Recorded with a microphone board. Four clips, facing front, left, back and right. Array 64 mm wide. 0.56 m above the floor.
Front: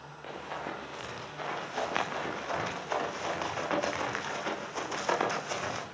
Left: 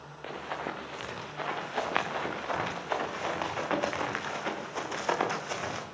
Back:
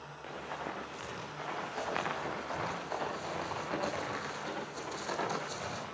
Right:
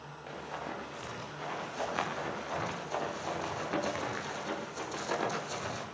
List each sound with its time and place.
0.2 s running footsteps: 85° left, 7.5 m; by 5.8 s 50° left, 7.5 m